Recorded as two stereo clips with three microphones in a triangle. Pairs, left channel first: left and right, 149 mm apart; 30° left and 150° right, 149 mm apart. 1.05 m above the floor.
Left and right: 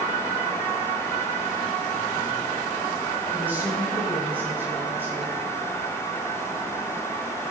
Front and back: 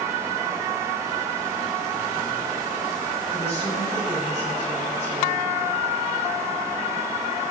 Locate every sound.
3.3 s a woman speaking: 15° right, 4.5 m